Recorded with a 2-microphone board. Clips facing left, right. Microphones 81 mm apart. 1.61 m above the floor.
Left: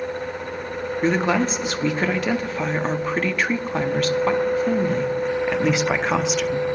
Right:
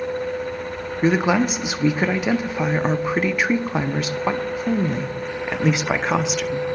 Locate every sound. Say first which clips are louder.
1.0 s a woman speaking: right 2 dB; 10° right (ahead or behind), 0.7 m